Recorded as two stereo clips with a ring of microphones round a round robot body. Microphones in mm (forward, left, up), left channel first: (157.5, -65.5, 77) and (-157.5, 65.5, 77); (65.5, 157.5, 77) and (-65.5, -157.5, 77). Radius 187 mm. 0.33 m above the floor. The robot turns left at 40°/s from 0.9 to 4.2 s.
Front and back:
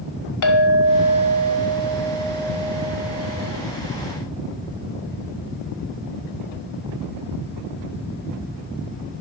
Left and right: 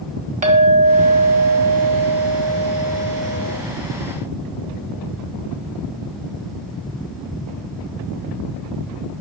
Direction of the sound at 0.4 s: 45° right.